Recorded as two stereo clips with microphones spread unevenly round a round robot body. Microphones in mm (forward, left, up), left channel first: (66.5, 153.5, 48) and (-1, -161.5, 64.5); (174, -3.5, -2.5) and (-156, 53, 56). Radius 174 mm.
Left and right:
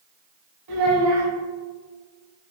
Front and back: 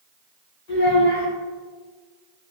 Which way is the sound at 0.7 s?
70° right.